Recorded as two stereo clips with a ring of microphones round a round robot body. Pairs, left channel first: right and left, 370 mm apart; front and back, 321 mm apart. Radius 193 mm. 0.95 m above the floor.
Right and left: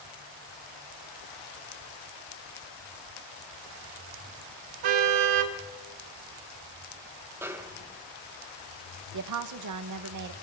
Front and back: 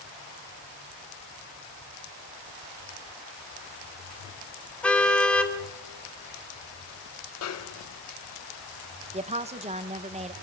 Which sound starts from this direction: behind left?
A woman speaking, at 9.1 s.